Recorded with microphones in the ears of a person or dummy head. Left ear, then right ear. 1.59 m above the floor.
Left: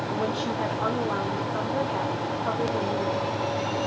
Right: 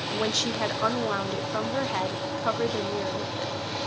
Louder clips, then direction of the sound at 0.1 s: Right 3 dB; 70° right (ahead or behind).